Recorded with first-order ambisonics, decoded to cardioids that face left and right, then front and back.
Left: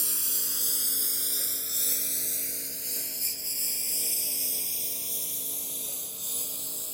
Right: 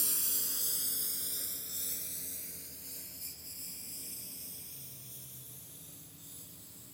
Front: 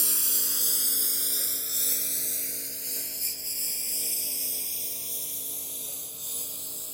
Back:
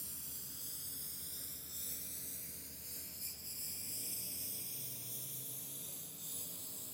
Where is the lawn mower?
15° left; by 6.9 s 55° left.